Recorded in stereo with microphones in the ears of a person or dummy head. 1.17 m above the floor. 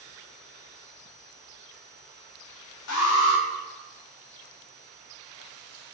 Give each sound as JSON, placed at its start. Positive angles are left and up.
{"t": 2.9, "sound": "an alarm", "side_deg": 75, "distance_m": 0.6}